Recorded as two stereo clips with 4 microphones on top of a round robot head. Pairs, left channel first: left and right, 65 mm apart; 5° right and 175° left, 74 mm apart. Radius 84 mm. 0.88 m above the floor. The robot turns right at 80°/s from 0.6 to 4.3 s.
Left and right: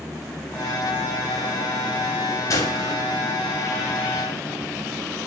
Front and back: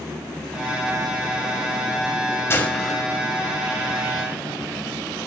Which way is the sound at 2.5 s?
50° left.